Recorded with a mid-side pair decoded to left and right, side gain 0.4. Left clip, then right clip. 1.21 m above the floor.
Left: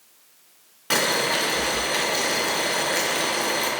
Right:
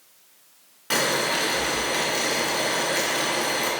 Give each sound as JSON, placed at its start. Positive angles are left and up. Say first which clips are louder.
{"t": 0.9, "sound": "boiling", "louder": "left 1 dB", "azimuth_deg": 25, "distance_m": 1.1}